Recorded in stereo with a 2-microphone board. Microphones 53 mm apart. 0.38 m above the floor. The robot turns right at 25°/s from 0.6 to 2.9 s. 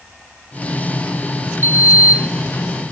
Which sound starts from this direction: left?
A sliding door, at 1.6 s.